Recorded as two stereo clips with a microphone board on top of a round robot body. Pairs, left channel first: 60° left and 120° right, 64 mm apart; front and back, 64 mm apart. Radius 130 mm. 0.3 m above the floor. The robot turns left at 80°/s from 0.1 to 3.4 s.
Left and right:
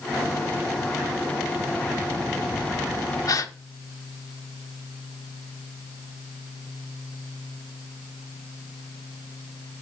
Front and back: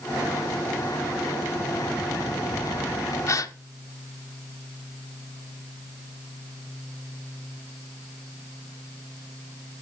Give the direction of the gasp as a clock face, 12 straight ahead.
11 o'clock.